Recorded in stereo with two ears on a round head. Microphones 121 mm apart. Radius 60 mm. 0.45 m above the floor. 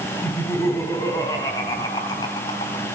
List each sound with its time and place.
0.2 s laughter: 20° left (ahead or behind), 4 m; by 2.9 s 40° left (ahead or behind), 3 m